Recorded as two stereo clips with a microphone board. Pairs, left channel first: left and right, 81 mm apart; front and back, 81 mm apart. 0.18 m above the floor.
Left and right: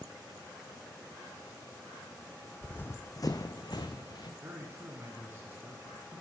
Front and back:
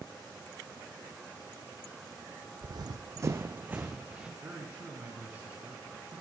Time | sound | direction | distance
2.6 | running footsteps | 165° left | 0.6 m
4.4 | a man speaking | 125° right | 1.2 m